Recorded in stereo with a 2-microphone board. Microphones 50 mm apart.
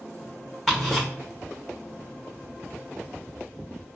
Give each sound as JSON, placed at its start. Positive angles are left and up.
{"t": 0.7, "sound": "ticking", "side_deg": 5, "distance_m": 2.5}